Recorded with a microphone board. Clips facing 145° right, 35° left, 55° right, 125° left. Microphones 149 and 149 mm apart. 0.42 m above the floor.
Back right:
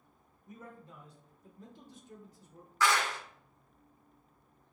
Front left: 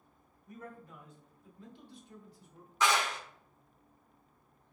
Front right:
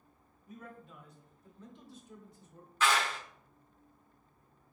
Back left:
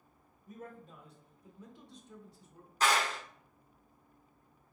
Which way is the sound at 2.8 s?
95° left.